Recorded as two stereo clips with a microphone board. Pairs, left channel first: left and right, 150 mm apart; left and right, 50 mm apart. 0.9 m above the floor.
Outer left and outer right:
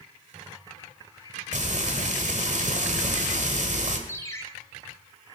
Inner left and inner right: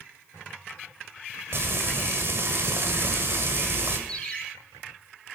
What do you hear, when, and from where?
1.5 s frying: 55° right (ahead or behind), 1.7 m
4.1 s a ringtone: 20° left (ahead or behind), 2 m